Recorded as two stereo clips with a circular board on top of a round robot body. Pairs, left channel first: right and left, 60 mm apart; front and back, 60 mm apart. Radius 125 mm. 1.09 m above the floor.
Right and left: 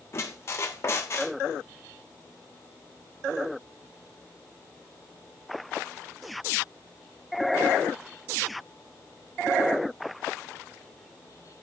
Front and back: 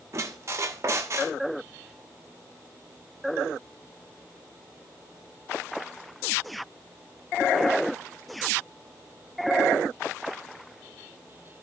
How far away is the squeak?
About 1.3 m.